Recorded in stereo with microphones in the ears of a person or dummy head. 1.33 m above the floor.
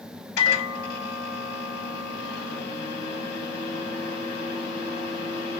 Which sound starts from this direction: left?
A microwave, at 0.4 s.